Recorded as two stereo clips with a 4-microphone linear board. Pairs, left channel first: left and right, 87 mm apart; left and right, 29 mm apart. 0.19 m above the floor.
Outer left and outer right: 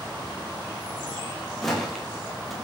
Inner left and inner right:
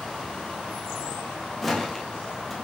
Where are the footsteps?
5° left (ahead or behind), 4.5 m.